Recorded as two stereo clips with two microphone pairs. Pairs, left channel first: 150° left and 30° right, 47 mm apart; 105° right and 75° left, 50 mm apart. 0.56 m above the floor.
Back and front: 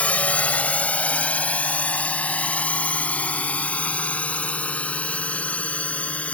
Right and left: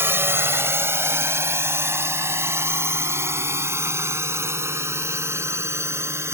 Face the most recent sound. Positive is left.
turn(degrees=95)